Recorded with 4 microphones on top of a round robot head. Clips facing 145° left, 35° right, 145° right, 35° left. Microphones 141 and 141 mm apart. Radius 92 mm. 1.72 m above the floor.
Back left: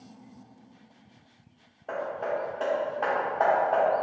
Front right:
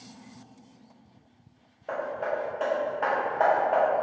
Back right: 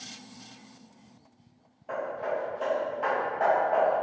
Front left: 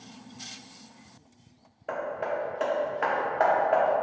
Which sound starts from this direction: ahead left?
Hammering, at 1.9 s.